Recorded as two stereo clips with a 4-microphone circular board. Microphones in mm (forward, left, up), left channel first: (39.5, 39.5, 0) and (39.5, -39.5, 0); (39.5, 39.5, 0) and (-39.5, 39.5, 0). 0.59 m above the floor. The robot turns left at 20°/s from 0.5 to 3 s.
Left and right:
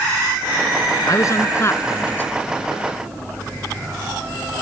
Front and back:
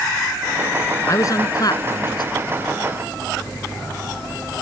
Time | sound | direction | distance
1.1 | a man speaking | 50° left | ?